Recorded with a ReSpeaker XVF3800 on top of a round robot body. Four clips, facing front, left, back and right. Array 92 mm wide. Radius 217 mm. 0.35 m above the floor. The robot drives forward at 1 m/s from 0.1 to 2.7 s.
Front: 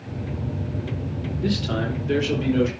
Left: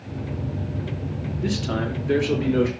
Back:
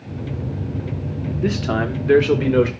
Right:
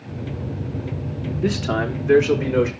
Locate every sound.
1.4 s a man speaking: 140° right, 1.6 m; by 2.7 s 165° right, 2.5 m